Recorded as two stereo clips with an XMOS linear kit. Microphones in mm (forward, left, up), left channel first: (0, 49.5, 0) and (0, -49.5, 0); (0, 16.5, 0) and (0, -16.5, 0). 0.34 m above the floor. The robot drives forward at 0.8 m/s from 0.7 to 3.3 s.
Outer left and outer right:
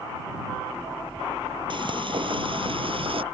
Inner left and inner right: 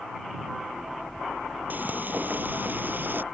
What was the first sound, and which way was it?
Frying, 55° right (ahead or behind).